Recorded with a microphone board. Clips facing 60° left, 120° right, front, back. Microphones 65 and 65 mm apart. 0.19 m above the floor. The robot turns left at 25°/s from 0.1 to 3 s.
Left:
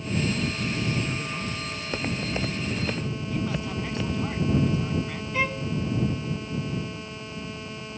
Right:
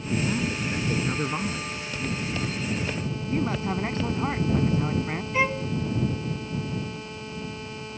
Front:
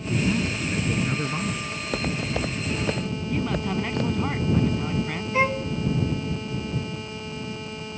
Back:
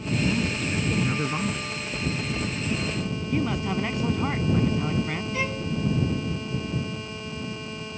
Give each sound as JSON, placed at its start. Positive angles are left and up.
{"t": 0.1, "sound": "a man speaking", "azimuth_deg": -70}
{"t": 1.8, "sound": "footsteps", "azimuth_deg": 10}
{"t": 3.3, "sound": "a man speaking", "azimuth_deg": -95}
{"t": 5.3, "sound": "a violin", "azimuth_deg": -45}